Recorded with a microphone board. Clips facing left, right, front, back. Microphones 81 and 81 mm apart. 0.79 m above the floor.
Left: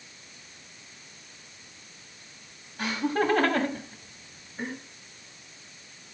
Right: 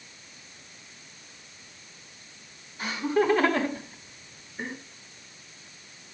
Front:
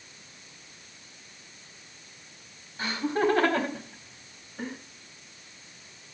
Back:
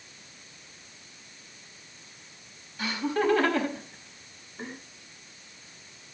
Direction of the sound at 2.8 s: 60° left.